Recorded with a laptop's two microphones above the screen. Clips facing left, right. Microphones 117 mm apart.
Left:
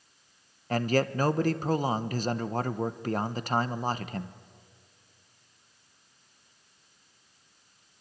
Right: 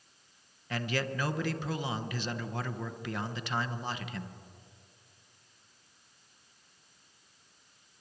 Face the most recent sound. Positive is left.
turn(degrees=40)  # may be behind; listen again after turning